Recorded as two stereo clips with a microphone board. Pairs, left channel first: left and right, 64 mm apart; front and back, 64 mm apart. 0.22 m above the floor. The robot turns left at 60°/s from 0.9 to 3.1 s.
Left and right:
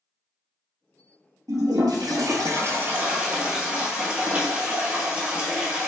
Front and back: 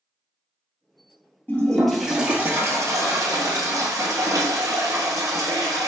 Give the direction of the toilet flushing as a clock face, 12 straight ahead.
2 o'clock.